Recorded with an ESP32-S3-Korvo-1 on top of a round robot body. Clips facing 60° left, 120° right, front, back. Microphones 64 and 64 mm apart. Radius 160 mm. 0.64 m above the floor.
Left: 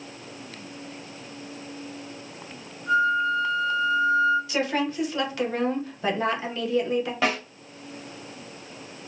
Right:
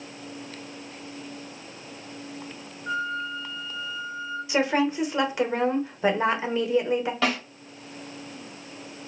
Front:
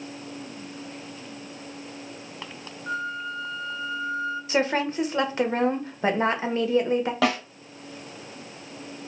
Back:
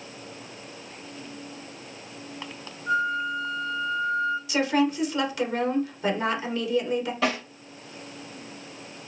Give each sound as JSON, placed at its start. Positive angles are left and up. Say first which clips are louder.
{"t": 2.9, "sound": "a flute", "louder": "left 8 dB, back 5 dB", "azimuth_deg": -35, "distance_m": 1.4}
{"t": 4.5, "sound": "a woman speaking", "louder": "right 3 dB, even", "azimuth_deg": -55, "distance_m": 0.9}
{"t": 7.2, "sound": "a snare drum", "louder": "left 2 dB, front 2 dB", "azimuth_deg": -15, "distance_m": 1.3}